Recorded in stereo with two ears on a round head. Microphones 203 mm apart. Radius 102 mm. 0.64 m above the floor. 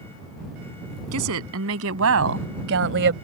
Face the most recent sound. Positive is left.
turn(degrees=-55)  # may be behind; listen again after turning